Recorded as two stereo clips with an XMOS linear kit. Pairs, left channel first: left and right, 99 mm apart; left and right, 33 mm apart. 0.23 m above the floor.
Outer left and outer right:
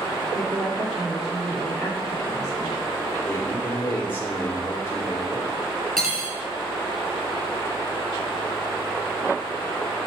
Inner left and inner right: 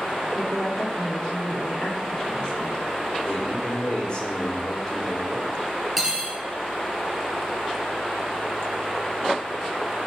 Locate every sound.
0.3 s a woman speaking: 25° left (ahead or behind), 2 m
3.2 s a man speaking: 20° left (ahead or behind), 2.5 m
6.0 s cutlery clinking: 5° left (ahead or behind), 2.5 m